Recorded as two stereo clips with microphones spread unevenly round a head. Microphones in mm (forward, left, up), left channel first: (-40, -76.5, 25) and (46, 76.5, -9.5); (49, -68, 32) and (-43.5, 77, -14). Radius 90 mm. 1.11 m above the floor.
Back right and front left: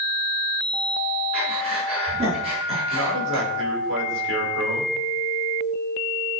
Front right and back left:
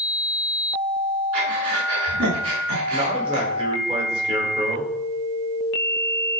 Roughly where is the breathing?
Behind left.